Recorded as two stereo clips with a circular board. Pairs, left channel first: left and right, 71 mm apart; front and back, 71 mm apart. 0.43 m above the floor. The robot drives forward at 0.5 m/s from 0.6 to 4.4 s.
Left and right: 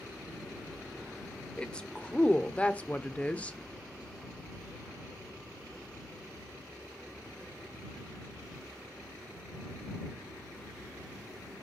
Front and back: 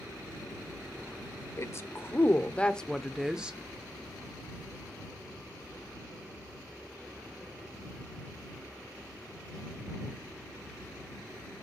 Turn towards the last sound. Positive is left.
turn(degrees=160)